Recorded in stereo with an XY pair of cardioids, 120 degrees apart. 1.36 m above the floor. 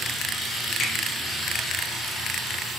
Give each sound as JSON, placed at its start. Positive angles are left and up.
{"t": 0.8, "sound": "a finger snap", "azimuth_deg": 50, "distance_m": 1.4}